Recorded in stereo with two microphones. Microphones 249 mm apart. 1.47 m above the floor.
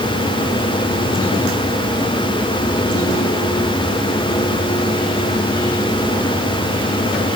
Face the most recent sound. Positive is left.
No sound to turn to.